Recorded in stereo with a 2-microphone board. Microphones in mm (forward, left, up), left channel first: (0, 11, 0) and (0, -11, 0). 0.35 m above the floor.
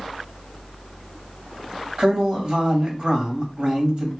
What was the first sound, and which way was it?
A man speaking, 40° right (ahead or behind).